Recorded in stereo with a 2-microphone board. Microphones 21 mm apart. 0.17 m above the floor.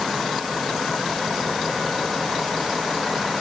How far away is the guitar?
No guitar in this recording.